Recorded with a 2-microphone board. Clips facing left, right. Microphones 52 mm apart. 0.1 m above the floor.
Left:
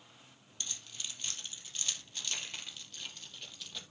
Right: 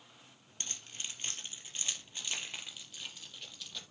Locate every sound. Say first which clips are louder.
0.6 s keys jangling: even; 35° right (ahead or behind), 2.5 m; by 3.8 s 5° left (ahead or behind), 2.5 m